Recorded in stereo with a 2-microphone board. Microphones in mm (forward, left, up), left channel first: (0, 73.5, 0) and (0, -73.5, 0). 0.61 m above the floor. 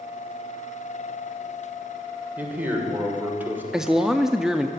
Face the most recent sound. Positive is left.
turn(degrees=-5)  # may be behind; listen again after turning